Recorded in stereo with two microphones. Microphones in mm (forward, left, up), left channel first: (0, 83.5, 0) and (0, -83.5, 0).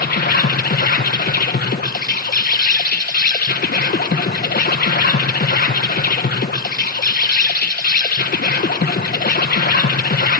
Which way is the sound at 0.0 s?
75° left (ahead or behind).